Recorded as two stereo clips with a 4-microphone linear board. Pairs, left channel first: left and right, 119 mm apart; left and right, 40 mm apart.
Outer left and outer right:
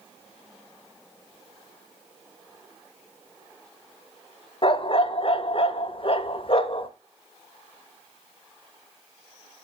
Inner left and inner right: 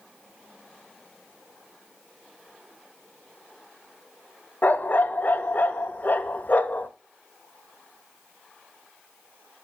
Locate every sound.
4.6 s a dog barking: 50° left (ahead or behind), 0.7 m